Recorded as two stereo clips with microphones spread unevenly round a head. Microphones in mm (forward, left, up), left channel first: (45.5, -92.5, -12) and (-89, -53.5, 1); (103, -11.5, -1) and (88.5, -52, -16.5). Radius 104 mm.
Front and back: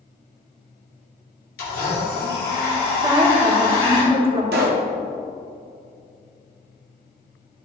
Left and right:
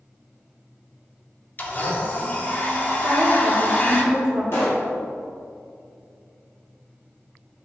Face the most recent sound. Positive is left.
turn(degrees=135)